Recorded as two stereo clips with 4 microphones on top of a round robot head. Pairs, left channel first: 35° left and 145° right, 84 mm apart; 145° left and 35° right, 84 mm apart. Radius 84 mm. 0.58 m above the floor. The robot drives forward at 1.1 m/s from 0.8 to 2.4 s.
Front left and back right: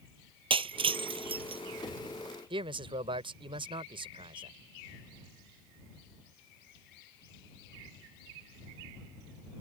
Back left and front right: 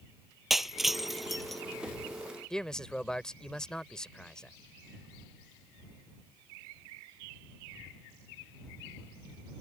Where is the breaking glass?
125° right; by 1.6 s 130° right.